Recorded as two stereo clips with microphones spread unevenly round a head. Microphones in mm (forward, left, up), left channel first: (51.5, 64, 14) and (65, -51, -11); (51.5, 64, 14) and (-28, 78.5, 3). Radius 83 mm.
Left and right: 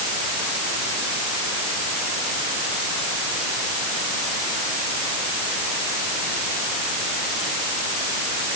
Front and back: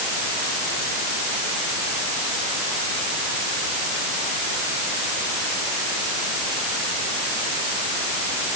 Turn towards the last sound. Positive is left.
No sound to turn to.